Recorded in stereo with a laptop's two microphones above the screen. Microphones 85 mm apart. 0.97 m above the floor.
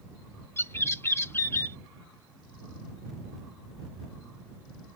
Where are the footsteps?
I don't hear footsteps.